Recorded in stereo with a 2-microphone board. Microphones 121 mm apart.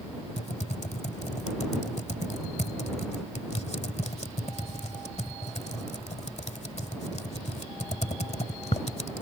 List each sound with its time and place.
0.4 s typing on a keyboard: 60° left (ahead or behind)